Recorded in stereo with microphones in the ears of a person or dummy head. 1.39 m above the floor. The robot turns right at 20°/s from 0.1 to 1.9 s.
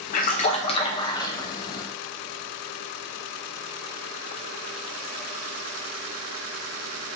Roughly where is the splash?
Left.